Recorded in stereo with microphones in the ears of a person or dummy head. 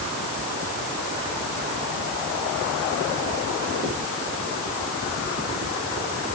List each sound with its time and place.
Only background noise.